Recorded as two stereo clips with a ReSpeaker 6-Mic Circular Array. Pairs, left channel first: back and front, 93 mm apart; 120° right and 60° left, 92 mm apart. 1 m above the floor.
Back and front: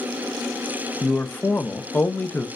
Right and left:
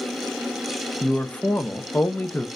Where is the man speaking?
155° right, 0.6 m.